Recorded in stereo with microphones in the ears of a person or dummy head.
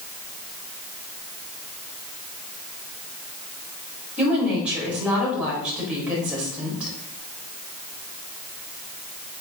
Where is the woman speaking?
10° right (ahead or behind), 4.5 m.